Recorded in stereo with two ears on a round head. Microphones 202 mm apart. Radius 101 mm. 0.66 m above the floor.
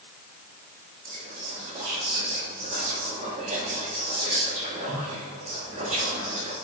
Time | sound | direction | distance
1.1 | whispering | 30° right (ahead or behind) | 1.3 m